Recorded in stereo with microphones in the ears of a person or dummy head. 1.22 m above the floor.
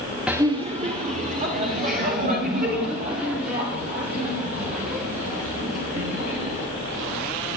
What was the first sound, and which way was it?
Laughter, 10° right (ahead or behind).